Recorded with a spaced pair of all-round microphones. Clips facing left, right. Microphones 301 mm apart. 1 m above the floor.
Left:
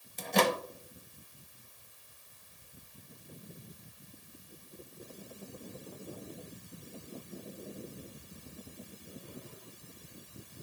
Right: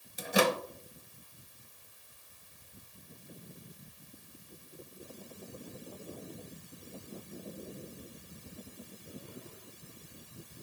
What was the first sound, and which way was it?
A microwave, 10° right (ahead or behind).